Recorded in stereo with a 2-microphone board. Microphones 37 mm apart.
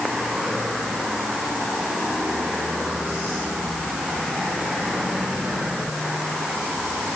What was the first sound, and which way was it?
Only background noise.